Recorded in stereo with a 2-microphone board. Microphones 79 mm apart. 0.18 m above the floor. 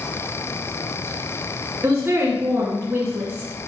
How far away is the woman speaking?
About 2 m.